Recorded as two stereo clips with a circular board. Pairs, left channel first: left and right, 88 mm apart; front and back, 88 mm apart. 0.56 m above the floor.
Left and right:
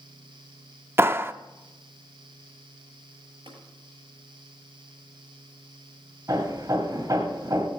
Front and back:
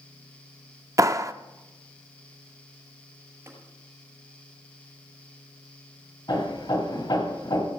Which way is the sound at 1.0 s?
145° right.